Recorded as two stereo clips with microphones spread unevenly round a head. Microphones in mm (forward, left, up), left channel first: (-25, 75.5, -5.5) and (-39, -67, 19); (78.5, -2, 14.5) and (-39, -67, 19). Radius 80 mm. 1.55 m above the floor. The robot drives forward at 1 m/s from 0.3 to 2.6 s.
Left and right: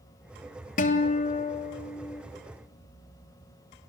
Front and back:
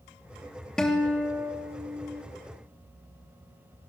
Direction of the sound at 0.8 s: 115° left.